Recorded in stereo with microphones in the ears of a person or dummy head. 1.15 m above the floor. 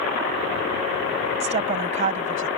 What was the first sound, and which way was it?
A woman speaking, 35° right (ahead or behind).